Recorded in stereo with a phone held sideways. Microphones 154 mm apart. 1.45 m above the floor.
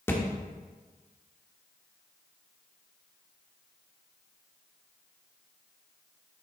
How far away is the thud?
About 1.0 m.